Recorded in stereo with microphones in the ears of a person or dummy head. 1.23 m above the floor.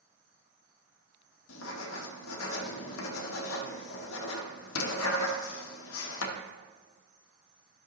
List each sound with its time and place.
1.5 s writing: 85° left, 1.2 m